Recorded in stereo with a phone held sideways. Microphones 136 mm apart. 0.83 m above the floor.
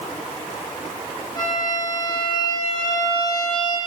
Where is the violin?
30° left (ahead or behind), 9 m.